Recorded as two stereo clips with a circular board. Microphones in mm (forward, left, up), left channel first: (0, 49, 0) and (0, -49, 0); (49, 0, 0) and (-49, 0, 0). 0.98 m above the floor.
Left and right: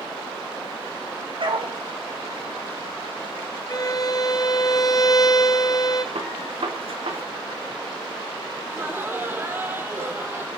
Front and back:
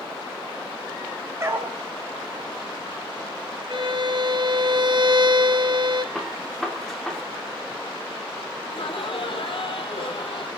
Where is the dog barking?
120° right, 3 m.